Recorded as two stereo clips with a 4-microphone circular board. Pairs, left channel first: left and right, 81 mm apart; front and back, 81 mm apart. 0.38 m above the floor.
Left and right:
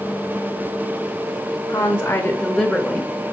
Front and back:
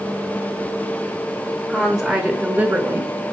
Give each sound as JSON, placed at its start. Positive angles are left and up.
{"t": 1.7, "sound": "a woman speaking", "azimuth_deg": 80, "distance_m": 1.3}